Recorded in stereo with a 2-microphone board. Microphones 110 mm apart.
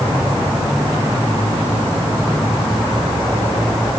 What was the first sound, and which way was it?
Only background noise.